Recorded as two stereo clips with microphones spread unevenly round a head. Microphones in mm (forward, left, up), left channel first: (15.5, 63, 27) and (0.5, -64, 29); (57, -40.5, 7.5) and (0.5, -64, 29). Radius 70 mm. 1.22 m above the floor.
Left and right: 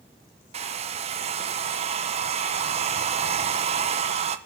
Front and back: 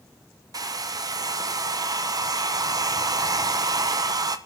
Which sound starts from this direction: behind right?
A hair dryer, at 0.5 s.